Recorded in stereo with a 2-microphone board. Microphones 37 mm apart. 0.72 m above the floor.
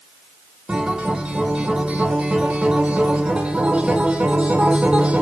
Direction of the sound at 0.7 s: 25° right (ahead or behind).